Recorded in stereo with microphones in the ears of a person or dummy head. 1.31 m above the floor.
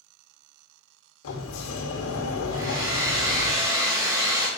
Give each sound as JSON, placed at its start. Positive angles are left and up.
{"t": 1.2, "sound": "a sliding door", "side_deg": 70, "distance_m": 1.0}
{"t": 2.5, "sound": "a hair dryer", "side_deg": -20, "distance_m": 1.1}